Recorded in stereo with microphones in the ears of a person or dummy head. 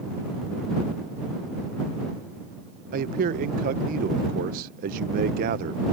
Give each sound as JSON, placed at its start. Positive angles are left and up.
{"t": 2.9, "sound": "a man speaking", "side_deg": -55}